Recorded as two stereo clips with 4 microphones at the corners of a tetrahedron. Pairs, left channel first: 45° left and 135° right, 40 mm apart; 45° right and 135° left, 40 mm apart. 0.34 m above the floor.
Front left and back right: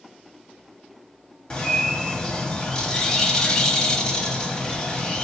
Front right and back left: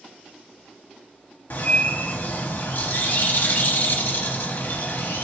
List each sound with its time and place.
1.5 s a bird: 25° right, 0.6 m